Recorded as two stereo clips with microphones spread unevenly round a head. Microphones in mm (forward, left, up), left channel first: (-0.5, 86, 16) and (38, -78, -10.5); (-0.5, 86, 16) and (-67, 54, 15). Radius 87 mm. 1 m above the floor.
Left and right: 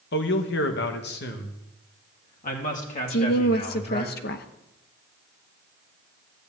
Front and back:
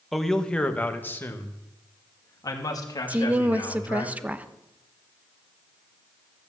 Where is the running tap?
I don't hear a running tap.